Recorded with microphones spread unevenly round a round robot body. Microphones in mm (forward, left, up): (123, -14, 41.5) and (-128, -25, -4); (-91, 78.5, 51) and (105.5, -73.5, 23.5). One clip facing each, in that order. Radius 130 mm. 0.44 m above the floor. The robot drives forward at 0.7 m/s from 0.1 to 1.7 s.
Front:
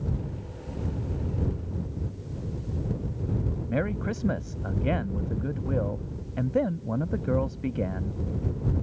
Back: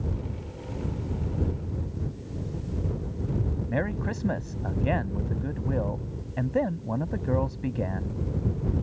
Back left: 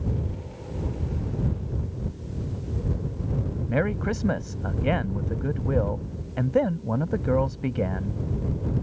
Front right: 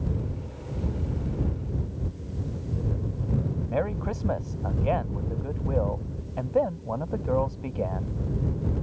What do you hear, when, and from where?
3.7 s a man speaking: 85° left